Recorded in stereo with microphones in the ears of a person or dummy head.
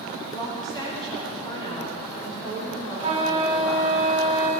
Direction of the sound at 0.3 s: 30° left (ahead or behind).